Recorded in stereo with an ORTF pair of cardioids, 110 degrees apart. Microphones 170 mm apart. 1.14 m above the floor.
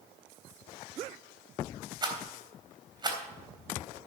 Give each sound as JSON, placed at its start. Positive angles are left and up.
{"t": 2.0, "sound": "a rattle", "azimuth_deg": -25, "distance_m": 3.5}